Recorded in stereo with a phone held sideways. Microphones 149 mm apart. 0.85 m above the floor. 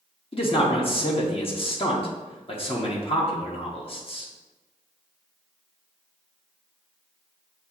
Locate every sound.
0.3 s a man speaking: 40° left (ahead or behind), 0.9 m